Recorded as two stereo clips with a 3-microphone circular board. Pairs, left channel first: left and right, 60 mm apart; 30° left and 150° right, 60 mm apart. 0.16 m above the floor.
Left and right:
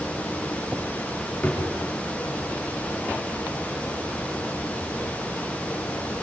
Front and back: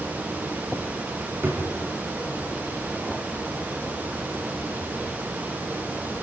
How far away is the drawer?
About 5.5 m.